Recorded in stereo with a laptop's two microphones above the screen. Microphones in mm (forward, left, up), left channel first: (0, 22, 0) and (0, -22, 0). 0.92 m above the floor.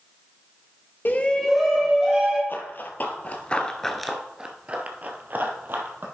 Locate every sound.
1.1 s a shout: 50° left (ahead or behind), 0.8 m; by 2.4 s 20° right (ahead or behind), 2 m
2.5 s running footsteps: 55° left (ahead or behind), 1.5 m; by 6.0 s 60° right (ahead or behind), 1.9 m